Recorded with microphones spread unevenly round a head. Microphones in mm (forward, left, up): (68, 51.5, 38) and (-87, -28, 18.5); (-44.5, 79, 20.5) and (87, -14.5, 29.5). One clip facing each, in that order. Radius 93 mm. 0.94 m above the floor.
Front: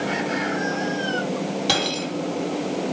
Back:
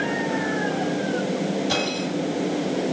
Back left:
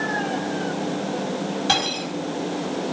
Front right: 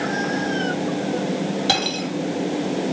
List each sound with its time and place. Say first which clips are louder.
1.7 s cutlery clinking: even, front right 1 dB; 10° left, 4 m